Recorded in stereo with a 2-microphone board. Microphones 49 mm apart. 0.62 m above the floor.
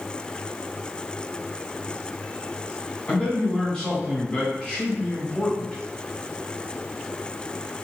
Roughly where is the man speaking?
Left.